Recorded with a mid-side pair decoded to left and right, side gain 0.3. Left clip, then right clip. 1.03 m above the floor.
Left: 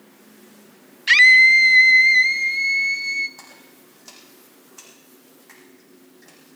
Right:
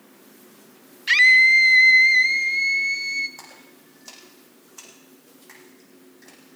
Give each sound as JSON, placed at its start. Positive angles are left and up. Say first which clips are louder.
{"t": 1.1, "sound": "a scream", "louder": "left 3 dB", "azimuth_deg": 45, "distance_m": 0.6}
{"t": 3.4, "sound": "a splash", "louder": "even", "azimuth_deg": -15, "distance_m": 8.5}